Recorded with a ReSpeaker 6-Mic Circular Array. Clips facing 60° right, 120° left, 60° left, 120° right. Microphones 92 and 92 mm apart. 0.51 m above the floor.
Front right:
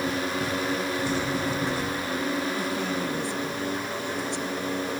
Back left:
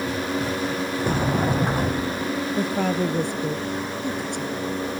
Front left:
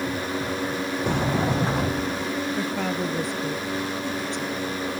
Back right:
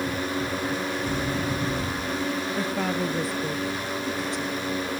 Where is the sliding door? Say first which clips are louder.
Back left 4 dB, front left 4 dB; 80° left.